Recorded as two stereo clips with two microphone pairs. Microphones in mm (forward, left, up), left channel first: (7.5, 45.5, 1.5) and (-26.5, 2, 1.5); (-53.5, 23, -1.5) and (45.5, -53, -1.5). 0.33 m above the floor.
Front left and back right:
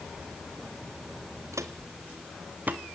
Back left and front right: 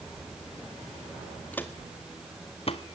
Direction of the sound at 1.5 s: 140° right.